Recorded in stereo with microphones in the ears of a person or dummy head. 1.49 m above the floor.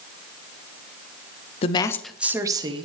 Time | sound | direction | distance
1.6 | a woman speaking | 30° left (ahead or behind) | 0.6 m